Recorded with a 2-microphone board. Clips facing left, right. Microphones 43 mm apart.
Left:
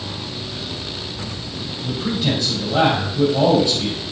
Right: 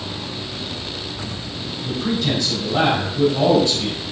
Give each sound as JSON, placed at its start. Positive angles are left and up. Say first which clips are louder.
{"t": 1.8, "sound": "a man speaking", "louder": "even", "side_deg": 15, "distance_m": 4.5}